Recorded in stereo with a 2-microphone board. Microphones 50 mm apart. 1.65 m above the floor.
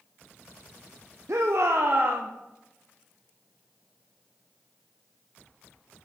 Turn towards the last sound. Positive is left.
turn(degrees=-40)  # may be behind; listen again after turning